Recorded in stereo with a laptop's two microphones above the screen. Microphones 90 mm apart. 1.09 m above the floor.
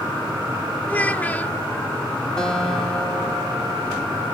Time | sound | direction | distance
0.9 | a child speaking | 15° left (ahead or behind) | 0.8 m
2.4 | a guitar | 5° left (ahead or behind) | 3.5 m